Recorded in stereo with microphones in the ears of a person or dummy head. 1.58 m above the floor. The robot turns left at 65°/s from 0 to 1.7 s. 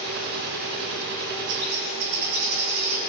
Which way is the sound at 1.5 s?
60° right (ahead or behind).